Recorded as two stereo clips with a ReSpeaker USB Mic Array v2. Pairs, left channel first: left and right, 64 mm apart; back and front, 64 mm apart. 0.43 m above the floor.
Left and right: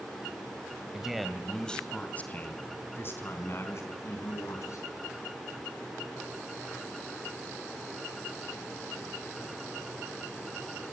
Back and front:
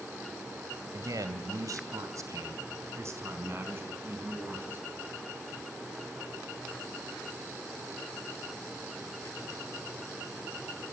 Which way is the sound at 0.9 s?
10° right.